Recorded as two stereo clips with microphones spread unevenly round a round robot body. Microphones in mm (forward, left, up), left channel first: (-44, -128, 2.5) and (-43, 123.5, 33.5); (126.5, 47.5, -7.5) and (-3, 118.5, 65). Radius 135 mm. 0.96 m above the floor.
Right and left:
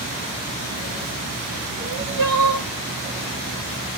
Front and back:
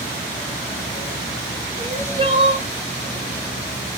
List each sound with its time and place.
1.8 s crying: 90° left, 1.6 m